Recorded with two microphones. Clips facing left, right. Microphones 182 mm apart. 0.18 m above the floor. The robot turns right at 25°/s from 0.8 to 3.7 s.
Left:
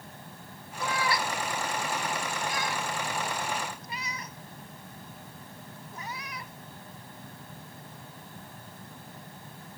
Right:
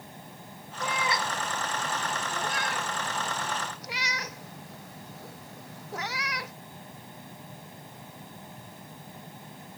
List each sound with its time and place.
0.8 s a cat meowing: 15° right (ahead or behind); by 6.5 s 85° right